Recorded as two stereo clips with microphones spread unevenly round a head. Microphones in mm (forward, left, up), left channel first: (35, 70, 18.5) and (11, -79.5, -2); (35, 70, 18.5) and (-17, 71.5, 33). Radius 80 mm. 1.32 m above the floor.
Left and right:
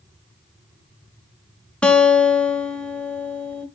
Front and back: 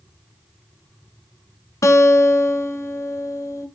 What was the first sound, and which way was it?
A guitar, 5° right.